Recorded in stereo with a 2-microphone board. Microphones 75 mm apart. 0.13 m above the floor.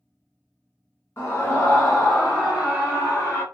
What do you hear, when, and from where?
1.2 s a scream: 25° left (ahead or behind), 1.6 m; by 3.4 s 40° right (ahead or behind), 1.9 m